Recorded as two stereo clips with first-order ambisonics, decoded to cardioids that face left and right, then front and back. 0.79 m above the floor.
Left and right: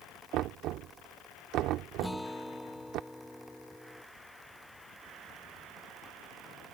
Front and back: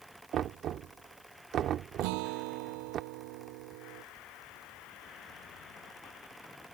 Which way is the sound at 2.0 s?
Straight behind.